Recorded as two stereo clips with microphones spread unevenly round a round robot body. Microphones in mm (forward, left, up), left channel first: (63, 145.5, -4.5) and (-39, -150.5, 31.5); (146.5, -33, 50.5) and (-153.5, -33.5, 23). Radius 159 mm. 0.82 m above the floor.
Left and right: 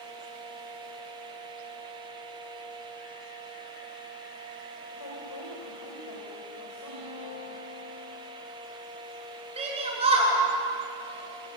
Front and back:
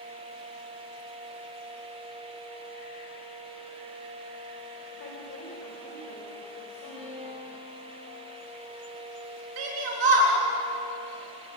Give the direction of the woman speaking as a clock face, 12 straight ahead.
10 o'clock.